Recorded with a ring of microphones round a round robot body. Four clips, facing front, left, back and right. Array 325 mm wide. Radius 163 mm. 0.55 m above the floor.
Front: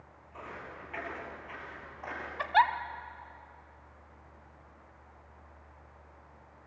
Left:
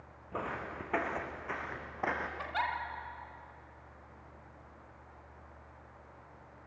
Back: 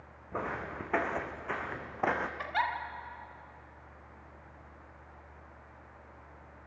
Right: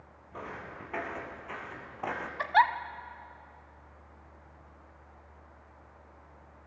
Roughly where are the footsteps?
Behind left.